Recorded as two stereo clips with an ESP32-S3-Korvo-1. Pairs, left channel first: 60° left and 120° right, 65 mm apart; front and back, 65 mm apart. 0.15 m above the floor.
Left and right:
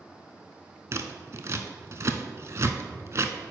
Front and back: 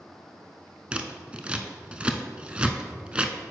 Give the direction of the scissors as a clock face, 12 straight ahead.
4 o'clock.